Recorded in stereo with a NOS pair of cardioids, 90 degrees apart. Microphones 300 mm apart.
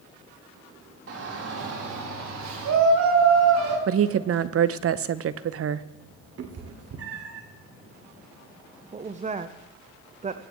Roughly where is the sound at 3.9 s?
Ahead right.